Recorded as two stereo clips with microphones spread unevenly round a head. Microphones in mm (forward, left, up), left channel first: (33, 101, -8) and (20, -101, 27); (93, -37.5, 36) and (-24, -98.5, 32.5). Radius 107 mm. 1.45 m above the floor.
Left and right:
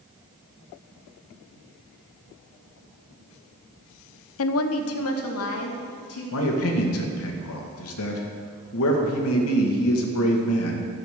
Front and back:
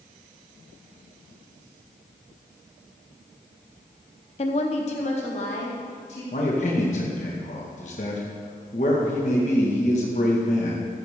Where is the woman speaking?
80° left, 0.6 m; by 6.2 s 85° left, 3 m.